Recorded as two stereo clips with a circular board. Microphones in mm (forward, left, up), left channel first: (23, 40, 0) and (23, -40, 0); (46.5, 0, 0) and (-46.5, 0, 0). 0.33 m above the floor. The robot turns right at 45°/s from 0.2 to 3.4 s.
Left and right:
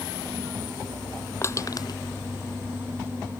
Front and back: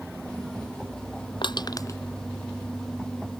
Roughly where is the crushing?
Ahead left.